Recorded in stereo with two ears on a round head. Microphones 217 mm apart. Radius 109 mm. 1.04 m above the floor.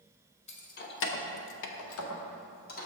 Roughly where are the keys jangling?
Left.